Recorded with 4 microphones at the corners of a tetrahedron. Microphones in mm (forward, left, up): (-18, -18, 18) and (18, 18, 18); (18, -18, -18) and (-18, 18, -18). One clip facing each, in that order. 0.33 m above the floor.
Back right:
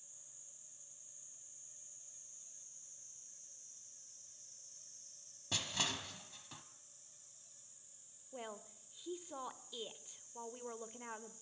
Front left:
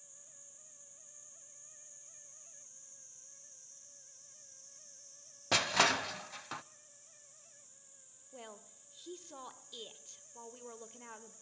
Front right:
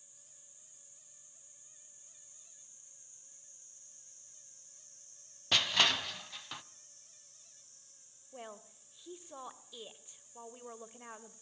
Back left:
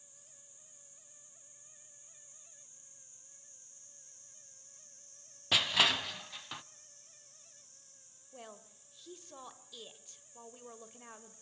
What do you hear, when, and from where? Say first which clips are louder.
5.5 s crushing: front left 11 dB, even; 50° left, 0.5 m
8.3 s a woman speaking: back right 3 dB, front right 3 dB; 85° right, 1.3 m